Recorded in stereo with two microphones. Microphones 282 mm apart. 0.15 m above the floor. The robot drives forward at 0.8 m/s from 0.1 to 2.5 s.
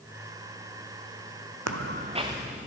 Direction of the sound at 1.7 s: 75° right (ahead or behind).